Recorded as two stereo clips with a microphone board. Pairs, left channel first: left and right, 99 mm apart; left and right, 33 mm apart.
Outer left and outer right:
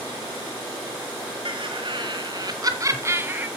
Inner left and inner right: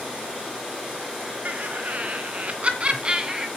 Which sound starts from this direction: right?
Laughter, at 1.4 s.